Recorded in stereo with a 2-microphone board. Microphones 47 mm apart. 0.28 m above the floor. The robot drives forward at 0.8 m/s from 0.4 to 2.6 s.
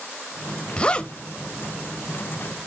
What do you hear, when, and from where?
0.8 s a zipper: 20° left (ahead or behind), 0.9 m